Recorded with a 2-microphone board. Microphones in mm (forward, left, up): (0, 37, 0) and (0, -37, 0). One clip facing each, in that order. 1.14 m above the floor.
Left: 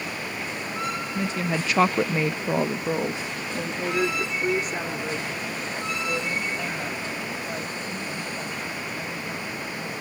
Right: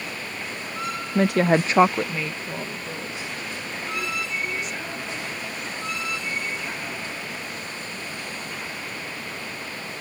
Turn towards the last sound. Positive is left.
turn(degrees=60)  # may be behind; listen again after turning